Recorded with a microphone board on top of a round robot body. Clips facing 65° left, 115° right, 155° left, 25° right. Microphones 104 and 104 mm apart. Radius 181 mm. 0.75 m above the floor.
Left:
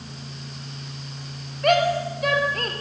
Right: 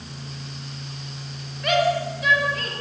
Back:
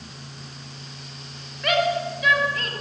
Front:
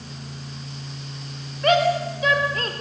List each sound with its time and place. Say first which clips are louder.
1.6 s a shout: left 1 dB, front 3 dB; 35° left, 4 m